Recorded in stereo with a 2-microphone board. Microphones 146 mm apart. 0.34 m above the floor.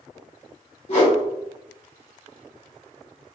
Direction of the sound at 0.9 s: 50° left (ahead or behind).